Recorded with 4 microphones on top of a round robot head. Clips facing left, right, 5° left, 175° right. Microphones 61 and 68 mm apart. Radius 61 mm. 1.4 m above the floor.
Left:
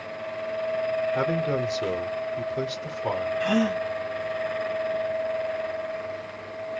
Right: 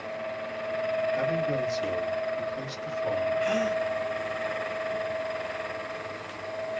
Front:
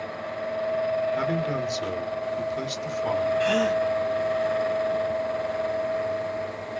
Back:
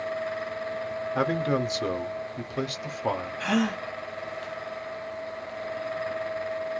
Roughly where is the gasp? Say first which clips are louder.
Left 2 dB, even; behind left.